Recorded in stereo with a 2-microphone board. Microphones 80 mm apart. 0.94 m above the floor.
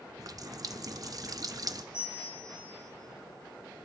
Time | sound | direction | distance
0.2 | a running tap | 50° right (ahead or behind) | 0.6 m
1.9 | a bell | 15° right (ahead or behind) | 9.5 m